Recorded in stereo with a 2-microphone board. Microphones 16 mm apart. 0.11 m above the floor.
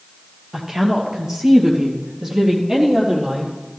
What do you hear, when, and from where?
0.5 s a woman speaking: 35° right (ahead or behind), 2.5 m